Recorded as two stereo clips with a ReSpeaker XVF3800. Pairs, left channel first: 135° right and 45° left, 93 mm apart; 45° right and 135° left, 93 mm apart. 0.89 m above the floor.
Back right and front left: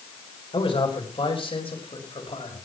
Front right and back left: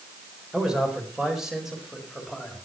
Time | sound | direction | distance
0.5 | a man speaking | 145° right | 4 m